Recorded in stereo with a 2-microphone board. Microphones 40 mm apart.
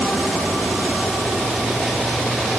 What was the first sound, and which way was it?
Only background noise.